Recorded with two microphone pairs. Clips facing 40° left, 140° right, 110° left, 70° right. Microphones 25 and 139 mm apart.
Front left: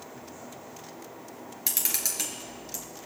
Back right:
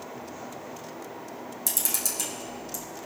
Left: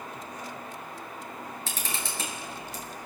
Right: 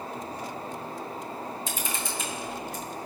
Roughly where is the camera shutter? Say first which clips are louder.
Even, right 3 dB; left.